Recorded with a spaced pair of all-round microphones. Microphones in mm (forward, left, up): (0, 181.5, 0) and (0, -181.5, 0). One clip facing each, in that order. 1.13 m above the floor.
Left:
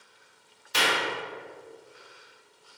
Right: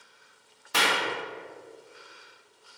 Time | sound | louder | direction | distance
0.7 | a clap | even | 70° right (ahead or behind) | 1.1 m